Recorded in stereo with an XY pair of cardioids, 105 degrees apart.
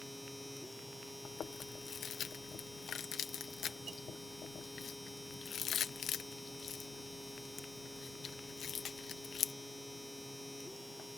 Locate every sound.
0.0 s a machine running: 5° left
1.2 s chewing: 55° left